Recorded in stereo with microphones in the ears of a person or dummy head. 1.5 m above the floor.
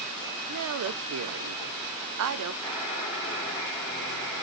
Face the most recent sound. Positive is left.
turn(degrees=20)  # may be behind; listen again after turning